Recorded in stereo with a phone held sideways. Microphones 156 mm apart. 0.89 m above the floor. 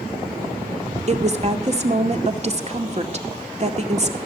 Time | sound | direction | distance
1.1 | a woman speaking | 45° right (ahead or behind) | 2 m